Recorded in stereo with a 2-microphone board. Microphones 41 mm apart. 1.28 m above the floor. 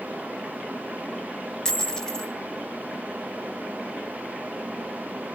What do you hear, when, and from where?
1.6 s a dropped coin: 15° left (ahead or behind), 1.6 m